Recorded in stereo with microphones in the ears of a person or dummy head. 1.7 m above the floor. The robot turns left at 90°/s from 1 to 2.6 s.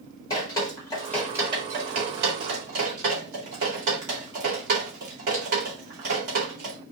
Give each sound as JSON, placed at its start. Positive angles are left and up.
{"t": 0.3, "sound": "dripping", "side_deg": 15, "distance_m": 2.0}